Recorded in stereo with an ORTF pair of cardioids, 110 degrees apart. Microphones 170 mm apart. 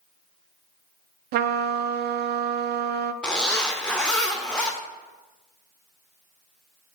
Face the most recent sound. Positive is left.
turn(degrees=5)